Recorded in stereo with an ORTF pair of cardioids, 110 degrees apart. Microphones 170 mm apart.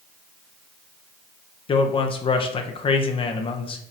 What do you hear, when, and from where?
1.7 s a man speaking: 35° left, 0.7 m